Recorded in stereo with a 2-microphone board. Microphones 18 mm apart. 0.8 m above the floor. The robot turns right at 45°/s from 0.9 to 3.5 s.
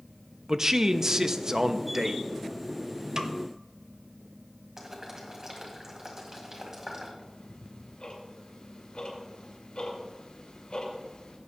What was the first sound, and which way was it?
A man speaking, 25° right (ahead or behind).